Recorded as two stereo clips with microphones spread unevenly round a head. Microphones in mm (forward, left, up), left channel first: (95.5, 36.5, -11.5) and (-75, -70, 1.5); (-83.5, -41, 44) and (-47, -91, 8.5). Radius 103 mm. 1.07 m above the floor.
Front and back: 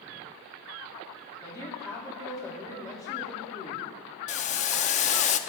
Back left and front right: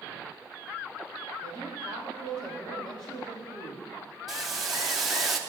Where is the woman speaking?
105° left, 2.5 m.